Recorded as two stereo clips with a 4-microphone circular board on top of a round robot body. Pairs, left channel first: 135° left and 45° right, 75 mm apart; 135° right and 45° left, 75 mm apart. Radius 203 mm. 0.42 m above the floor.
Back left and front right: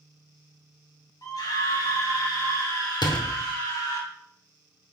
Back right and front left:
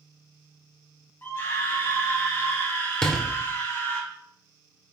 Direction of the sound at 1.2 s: 165° left.